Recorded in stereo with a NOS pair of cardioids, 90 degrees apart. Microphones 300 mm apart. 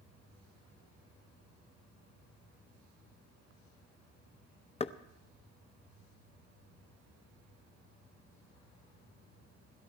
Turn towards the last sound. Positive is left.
turn(degrees=20)